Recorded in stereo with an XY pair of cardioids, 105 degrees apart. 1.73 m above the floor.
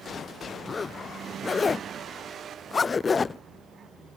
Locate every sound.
0.7 s a zipper: 35° left